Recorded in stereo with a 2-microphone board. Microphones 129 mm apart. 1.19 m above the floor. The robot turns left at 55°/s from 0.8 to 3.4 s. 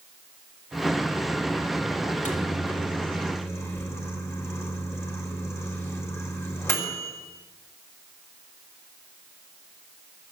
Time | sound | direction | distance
2.0 | a microwave | 95° left | 3 m